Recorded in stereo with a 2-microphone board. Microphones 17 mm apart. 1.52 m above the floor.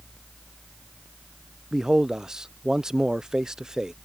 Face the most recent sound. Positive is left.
turn(degrees=-35)  # may be behind; listen again after turning